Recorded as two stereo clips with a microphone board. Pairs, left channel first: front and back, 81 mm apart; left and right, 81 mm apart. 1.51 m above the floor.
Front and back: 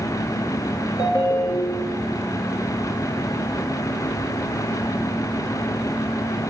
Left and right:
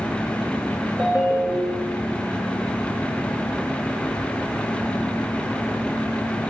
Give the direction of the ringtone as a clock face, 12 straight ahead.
1 o'clock.